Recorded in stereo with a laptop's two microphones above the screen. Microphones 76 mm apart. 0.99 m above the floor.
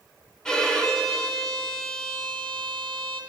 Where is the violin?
10° left (ahead or behind), 0.8 m.